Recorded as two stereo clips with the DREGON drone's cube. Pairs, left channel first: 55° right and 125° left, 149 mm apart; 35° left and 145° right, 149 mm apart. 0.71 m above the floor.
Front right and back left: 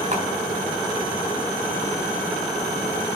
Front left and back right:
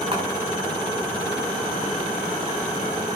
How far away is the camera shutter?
About 8.5 m.